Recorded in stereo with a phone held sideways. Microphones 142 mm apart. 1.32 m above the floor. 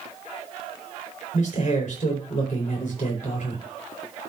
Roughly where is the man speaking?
Left.